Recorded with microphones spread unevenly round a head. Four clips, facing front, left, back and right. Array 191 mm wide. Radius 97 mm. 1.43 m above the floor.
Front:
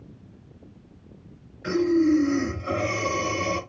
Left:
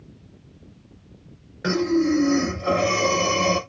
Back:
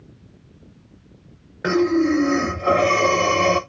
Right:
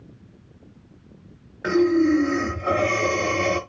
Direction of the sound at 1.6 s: Straight behind.